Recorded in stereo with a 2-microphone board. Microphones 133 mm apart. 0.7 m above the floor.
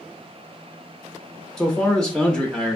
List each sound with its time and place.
1.6 s a man speaking: 5° left (ahead or behind), 0.5 m